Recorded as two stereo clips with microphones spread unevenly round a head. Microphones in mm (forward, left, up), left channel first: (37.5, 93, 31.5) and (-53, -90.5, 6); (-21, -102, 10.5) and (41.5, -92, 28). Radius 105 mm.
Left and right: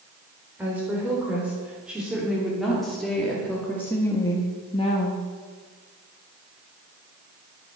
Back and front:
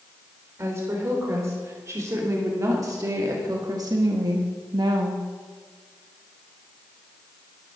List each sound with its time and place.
0.6 s a woman speaking: 35° right, 3.5 m; by 5.2 s 5° left, 1.2 m